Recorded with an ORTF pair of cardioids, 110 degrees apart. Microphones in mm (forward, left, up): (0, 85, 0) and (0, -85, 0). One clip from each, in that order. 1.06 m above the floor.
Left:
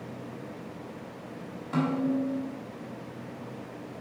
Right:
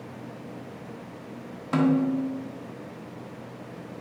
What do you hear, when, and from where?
1.7 s a snare drum: 45° right, 1.4 m